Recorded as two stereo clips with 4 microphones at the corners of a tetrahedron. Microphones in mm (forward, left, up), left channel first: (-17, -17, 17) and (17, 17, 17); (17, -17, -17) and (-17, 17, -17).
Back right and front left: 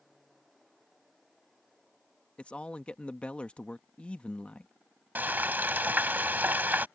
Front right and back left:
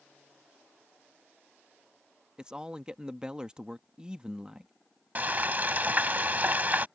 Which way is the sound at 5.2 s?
90° left.